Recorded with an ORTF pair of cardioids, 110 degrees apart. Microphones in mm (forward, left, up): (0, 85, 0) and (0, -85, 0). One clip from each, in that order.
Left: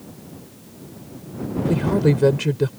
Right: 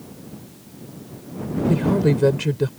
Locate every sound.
1.7 s a woman speaking: 5° left